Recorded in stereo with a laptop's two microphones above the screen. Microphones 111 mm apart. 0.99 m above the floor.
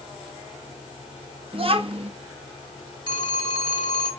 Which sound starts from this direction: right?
A child speaking, at 1.5 s.